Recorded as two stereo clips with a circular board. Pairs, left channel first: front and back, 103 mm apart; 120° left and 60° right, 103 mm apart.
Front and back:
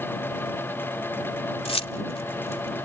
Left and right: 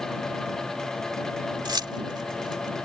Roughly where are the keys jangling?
Ahead.